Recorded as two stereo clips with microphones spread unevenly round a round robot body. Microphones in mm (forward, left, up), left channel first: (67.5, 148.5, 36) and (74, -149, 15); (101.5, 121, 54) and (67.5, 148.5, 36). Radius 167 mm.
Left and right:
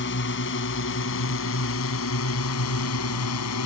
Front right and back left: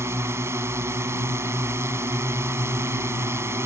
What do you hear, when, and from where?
0.0 s a drone: 150° left; by 3.7 s 140° left